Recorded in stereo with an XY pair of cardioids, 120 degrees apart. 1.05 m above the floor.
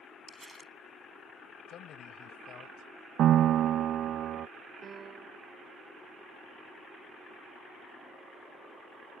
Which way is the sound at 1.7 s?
60° left.